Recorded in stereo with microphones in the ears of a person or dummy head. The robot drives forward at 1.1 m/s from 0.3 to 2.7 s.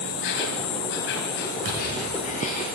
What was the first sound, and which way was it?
An insect, 60° left (ahead or behind).